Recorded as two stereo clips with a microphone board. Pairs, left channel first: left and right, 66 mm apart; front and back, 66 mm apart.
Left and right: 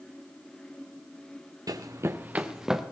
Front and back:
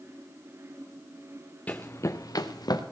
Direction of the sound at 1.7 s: 65° right.